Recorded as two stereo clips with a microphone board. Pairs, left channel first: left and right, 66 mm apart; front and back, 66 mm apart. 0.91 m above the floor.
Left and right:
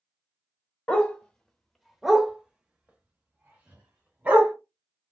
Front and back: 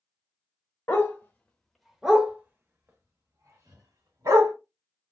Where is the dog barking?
30° left, 0.8 m; by 4.5 s 155° right, 1.6 m.